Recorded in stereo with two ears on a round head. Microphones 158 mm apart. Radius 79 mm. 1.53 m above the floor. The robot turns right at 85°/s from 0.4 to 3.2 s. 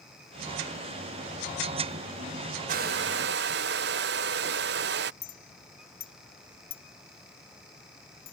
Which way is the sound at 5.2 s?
55° left (ahead or behind).